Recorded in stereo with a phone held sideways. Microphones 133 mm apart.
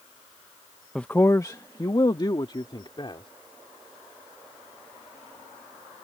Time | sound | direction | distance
0.9 | a man speaking | 5° left (ahead or behind) | ?